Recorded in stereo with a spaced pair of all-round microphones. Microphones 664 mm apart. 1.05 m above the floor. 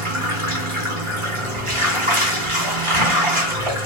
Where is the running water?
45° right (ahead or behind), 1.2 m.